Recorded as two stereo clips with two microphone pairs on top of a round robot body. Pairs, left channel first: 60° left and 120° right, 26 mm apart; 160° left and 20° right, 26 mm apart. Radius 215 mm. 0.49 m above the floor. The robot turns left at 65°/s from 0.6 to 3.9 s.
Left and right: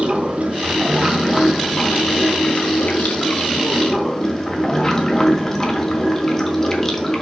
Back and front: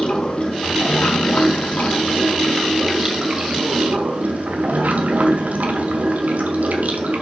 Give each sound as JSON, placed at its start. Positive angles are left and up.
{"t": 0.0, "sound": "running water", "azimuth_deg": -155, "distance_m": 1.7}